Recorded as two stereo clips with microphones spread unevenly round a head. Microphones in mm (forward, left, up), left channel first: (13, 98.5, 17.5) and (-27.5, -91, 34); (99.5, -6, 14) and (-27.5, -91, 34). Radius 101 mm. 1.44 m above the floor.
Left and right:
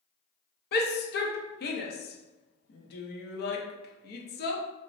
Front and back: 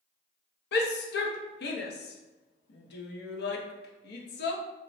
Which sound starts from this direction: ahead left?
A shout, at 0.7 s.